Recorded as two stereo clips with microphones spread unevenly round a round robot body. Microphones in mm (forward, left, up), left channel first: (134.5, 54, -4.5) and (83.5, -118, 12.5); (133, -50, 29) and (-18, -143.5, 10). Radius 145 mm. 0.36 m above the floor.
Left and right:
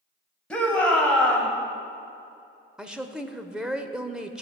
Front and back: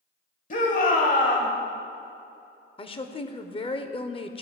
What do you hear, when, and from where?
0.5 s a shout: 5° right, 2 m
2.8 s a woman speaking: 15° right, 0.9 m